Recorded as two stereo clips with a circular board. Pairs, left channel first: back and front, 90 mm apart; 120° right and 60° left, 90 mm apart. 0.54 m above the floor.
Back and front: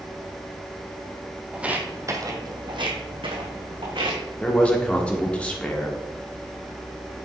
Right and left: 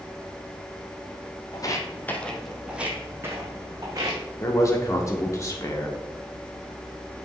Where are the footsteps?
80° right, 1.3 m; by 4.2 s 15° left, 2.5 m.